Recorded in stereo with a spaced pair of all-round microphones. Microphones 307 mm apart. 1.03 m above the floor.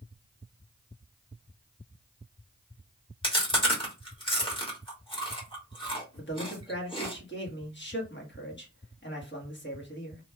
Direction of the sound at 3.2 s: 15° left (ahead or behind).